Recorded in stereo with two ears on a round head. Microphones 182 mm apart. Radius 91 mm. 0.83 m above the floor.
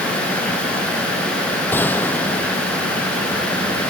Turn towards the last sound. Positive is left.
turn(degrees=10)  # may be behind; listen again after turning